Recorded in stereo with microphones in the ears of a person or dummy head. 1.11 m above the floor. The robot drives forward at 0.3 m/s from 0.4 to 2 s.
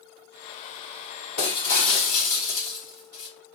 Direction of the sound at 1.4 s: 50° left (ahead or behind).